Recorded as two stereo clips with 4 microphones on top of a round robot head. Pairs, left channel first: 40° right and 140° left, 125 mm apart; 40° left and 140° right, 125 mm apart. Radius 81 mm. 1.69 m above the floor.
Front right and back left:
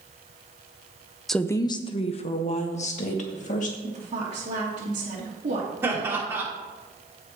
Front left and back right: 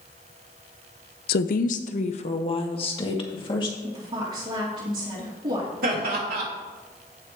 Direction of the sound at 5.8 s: 150° right.